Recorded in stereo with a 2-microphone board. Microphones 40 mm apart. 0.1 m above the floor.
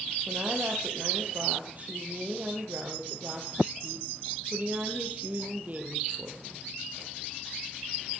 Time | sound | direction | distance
0.3 | a woman speaking | 40° right (ahead or behind) | 3.5 m